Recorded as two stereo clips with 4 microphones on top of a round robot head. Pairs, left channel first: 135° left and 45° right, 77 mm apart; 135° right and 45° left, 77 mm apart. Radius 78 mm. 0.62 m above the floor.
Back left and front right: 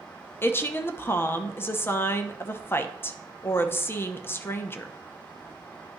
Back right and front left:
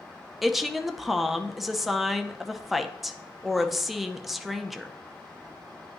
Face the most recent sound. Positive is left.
turn(degrees=130)